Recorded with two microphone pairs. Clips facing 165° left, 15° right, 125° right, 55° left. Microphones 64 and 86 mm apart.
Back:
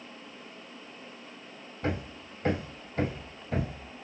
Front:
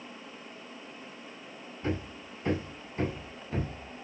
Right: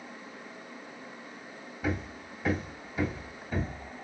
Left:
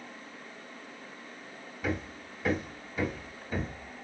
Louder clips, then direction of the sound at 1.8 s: Back 1 dB, right 1 dB; 155° left.